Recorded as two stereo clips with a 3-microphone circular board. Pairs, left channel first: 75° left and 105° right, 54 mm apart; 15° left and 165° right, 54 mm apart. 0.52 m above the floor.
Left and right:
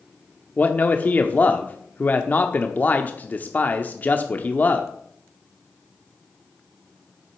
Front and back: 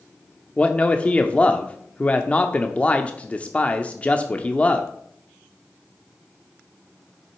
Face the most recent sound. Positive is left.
turn(degrees=60)